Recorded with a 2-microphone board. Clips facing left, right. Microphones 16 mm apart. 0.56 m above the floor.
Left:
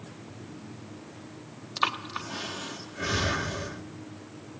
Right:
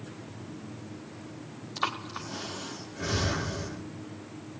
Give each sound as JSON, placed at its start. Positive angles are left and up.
{"t": 1.8, "sound": "breathing", "side_deg": 20, "distance_m": 1.3}